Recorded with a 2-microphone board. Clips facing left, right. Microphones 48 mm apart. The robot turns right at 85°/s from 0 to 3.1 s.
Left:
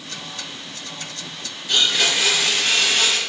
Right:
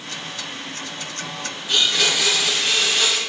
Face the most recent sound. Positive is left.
turn(degrees=100)